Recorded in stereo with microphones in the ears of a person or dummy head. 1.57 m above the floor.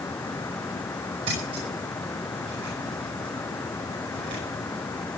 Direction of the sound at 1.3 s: 35° right (ahead or behind).